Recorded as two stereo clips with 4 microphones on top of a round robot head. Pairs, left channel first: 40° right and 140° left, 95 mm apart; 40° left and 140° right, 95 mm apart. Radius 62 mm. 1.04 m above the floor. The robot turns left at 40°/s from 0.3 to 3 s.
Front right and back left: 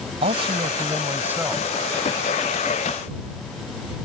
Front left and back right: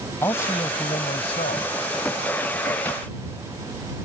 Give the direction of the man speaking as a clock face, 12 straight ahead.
8 o'clock.